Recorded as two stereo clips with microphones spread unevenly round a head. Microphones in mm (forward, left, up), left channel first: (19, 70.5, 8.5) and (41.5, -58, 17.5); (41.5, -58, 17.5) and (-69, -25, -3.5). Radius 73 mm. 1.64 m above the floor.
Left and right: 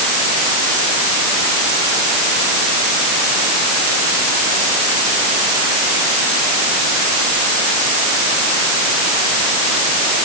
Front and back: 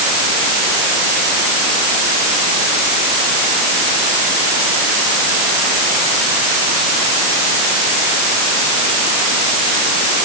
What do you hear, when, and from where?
Only background noise.